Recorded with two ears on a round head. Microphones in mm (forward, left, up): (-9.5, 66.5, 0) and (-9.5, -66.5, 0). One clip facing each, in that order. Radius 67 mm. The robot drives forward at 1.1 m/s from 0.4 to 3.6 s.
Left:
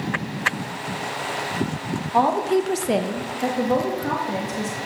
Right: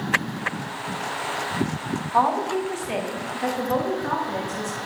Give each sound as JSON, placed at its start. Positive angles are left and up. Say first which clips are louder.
{"t": 2.1, "sound": "a woman speaking", "louder": "left 3 dB", "side_deg": 25, "distance_m": 0.9}